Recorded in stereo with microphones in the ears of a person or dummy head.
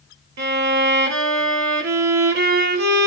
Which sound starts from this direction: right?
A violin, at 0.4 s.